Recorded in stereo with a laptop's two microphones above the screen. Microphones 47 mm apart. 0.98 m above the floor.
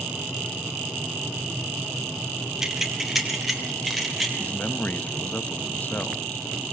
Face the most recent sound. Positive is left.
turn(degrees=35)  # may be behind; listen again after turning